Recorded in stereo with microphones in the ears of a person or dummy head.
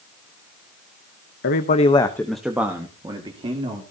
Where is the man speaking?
50° left (ahead or behind), 1.0 m; by 3.8 s 25° right (ahead or behind), 3 m.